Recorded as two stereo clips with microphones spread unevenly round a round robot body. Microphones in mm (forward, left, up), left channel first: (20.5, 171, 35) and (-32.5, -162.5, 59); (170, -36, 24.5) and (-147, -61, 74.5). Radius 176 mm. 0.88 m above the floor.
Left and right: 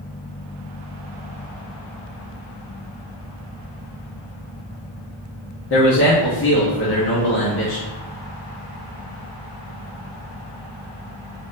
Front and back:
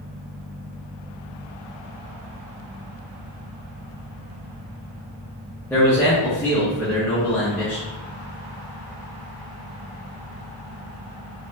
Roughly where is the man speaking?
Left.